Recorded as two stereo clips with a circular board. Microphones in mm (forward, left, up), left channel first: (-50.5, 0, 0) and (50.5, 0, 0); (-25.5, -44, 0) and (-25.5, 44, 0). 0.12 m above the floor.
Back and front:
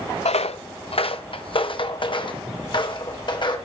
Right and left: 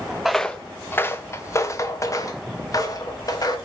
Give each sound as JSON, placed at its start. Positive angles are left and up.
{"t": 0.2, "sound": "footsteps", "azimuth_deg": 175, "distance_m": 0.5}